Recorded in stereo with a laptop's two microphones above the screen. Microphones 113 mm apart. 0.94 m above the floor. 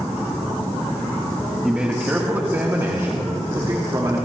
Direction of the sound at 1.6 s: 10° right (ahead or behind).